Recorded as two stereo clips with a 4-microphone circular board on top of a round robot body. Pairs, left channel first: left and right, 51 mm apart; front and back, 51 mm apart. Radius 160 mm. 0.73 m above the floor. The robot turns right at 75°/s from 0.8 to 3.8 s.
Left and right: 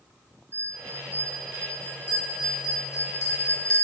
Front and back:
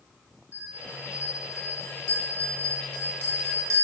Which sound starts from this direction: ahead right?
A bell, at 0.5 s.